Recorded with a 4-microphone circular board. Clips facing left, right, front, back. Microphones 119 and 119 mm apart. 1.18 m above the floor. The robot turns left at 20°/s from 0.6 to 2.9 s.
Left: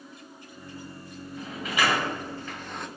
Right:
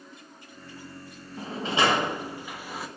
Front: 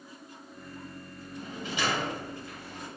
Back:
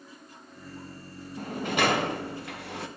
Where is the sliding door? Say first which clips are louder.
Right 3 dB, back 7 dB; 145° right, 0.7 m; by 2.9 s 175° right, 0.7 m.